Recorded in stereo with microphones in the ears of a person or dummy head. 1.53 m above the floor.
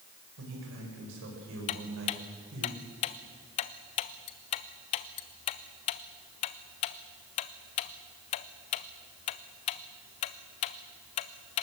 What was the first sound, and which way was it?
A man speaking, 75° right (ahead or behind).